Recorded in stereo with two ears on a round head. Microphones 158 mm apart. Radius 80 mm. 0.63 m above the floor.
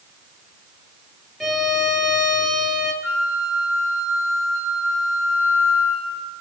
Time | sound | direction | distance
1.4 | a violin | 5° left (ahead or behind) | 5 m
3.0 | a flute | 85° left | 8 m